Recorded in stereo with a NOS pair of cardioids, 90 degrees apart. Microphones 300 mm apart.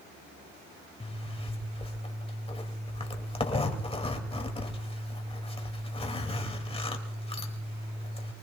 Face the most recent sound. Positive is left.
turn(degrees=20)